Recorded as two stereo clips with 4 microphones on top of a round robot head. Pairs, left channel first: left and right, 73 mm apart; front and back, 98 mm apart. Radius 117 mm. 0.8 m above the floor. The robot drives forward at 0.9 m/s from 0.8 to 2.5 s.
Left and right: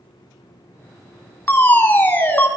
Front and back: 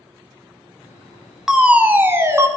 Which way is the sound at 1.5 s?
100° left.